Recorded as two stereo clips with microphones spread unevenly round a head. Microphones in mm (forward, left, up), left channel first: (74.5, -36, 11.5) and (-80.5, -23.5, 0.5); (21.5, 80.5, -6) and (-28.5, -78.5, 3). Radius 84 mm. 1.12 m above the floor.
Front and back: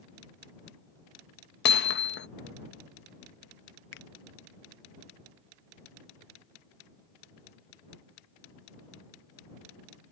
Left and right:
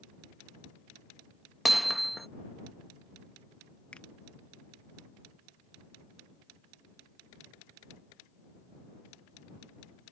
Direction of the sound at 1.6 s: 20° right.